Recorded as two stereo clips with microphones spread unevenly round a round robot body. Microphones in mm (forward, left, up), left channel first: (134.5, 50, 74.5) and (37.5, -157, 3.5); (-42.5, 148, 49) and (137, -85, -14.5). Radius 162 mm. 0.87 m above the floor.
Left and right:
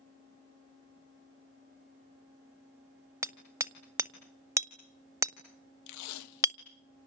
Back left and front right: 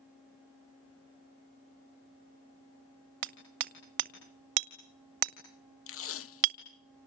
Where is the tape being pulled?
75° left, 0.7 m.